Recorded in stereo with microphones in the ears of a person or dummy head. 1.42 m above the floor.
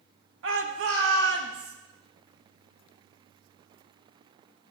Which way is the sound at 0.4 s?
70° right (ahead or behind).